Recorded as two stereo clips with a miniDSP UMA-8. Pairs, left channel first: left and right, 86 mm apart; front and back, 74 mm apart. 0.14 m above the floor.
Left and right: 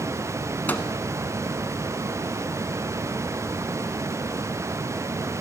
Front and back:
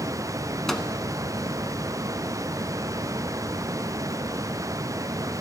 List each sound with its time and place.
0.7 s a microwave: 75° left, 0.8 m